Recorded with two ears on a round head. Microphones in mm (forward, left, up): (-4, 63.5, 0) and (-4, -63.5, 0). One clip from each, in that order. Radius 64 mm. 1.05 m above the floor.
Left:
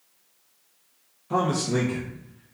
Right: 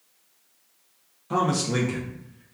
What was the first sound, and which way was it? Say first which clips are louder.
A man speaking: even; 15° right (ahead or behind).